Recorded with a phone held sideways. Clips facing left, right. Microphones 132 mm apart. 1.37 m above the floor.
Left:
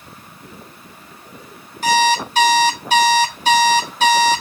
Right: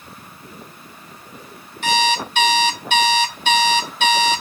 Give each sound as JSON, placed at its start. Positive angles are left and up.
{"t": 1.8, "sound": "an alarm clock", "side_deg": 35, "distance_m": 0.8}